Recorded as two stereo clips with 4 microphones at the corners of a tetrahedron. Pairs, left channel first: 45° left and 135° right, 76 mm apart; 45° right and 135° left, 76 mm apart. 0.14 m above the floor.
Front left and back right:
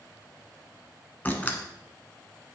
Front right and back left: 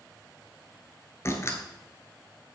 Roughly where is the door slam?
Ahead.